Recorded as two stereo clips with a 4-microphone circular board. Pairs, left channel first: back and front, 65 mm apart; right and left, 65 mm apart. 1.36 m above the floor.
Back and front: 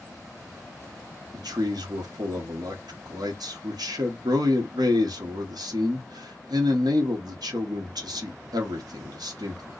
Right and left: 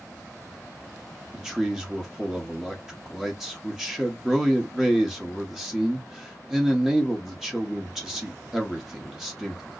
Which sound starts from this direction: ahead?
A man speaking, at 1.3 s.